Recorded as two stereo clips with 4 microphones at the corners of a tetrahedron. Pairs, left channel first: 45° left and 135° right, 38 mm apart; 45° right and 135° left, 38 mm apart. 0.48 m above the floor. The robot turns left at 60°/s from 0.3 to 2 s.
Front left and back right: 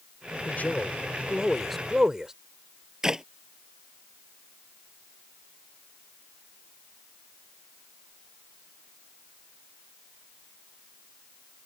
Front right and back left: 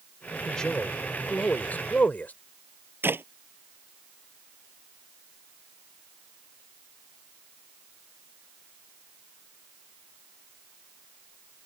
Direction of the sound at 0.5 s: 30° left.